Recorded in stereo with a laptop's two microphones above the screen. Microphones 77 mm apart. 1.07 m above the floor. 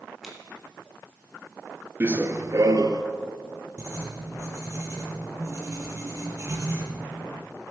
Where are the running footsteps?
25° right (ahead or behind), 1.1 m; by 3.0 s 50° right (ahead or behind), 1.6 m.